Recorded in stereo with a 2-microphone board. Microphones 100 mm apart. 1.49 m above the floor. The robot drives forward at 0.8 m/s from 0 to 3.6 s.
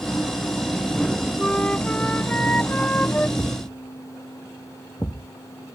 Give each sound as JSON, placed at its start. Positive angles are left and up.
{"t": 1.4, "sound": "a flute", "side_deg": 10}
{"t": 3.4, "sound": "a thud", "side_deg": 20}